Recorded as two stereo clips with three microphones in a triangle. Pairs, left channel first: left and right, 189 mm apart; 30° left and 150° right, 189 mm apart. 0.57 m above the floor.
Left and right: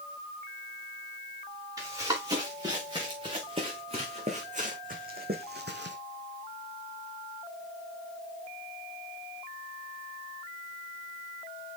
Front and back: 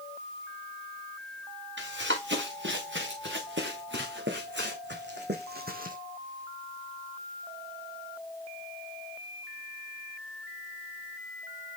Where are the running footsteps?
160° right, 5.5 m; by 6.0 s 105° right, 2 m.